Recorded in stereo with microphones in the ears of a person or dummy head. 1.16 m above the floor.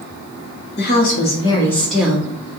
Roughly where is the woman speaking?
Left.